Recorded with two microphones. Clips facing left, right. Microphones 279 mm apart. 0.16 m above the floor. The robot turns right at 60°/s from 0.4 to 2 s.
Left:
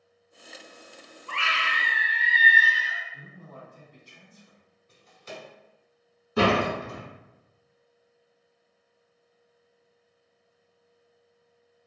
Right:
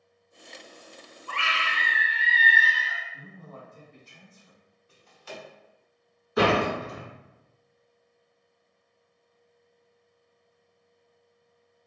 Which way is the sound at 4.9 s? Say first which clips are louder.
Even; 25° left (ahead or behind).